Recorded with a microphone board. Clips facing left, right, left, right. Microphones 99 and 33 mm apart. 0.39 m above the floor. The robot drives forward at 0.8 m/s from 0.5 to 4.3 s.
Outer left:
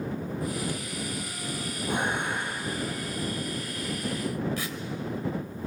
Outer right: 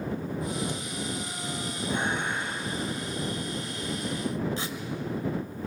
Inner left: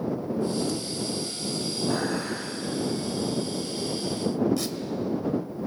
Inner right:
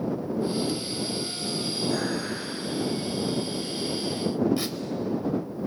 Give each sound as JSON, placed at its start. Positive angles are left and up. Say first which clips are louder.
{"t": 1.9, "sound": "dishes clattering", "louder": "outer left 1 dB, inner left 2 dB", "side_deg": 85, "distance_m": 7.5}
{"t": 4.6, "sound": "tearing paper", "louder": "even, even", "side_deg": -25, "distance_m": 1.4}